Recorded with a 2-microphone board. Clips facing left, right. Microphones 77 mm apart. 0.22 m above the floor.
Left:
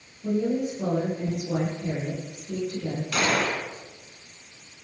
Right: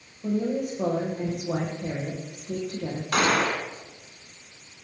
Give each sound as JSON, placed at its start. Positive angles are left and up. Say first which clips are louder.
{"t": 0.2, "sound": "a woman speaking", "louder": "left 1 dB", "side_deg": -55, "distance_m": 10.0}
{"t": 3.1, "sound": "a gunshot", "louder": "right 3 dB", "side_deg": -55, "distance_m": 2.0}